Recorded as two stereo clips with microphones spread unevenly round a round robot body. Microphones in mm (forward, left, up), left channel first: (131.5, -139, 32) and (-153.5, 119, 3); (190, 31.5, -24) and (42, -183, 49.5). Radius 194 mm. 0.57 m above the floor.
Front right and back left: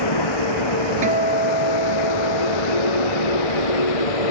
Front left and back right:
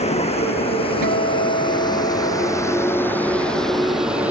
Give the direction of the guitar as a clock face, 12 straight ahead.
5 o'clock.